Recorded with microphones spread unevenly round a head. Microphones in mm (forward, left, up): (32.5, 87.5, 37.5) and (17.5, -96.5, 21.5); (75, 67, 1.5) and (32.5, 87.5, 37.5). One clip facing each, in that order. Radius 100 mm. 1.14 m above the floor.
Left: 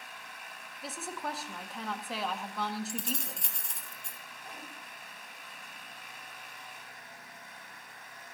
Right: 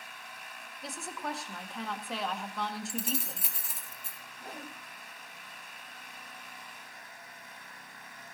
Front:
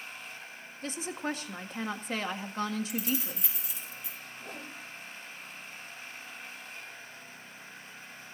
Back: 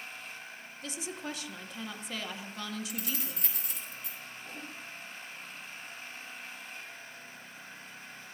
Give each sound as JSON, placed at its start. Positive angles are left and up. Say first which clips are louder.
{"t": 0.8, "sound": "a woman speaking", "louder": "even, front 5 dB", "azimuth_deg": -5, "distance_m": 1.8}
{"t": 2.9, "sound": "keys jangling", "louder": "right 2 dB, front 5 dB", "azimuth_deg": 180, "distance_m": 1.5}
{"t": 4.4, "sound": "a whoosh", "louder": "right 5 dB, front 2 dB", "azimuth_deg": -40, "distance_m": 3.0}